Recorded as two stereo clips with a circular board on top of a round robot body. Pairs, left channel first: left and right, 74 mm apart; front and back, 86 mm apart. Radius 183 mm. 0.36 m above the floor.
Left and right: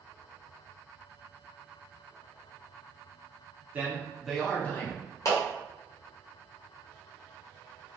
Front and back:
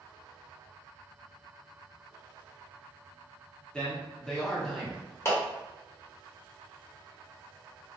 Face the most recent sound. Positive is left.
turn(degrees=55)